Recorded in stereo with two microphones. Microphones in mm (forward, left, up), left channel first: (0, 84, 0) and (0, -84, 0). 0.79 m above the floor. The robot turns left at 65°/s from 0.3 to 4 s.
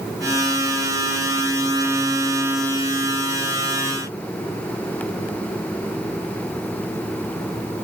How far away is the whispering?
I don't hear whispering.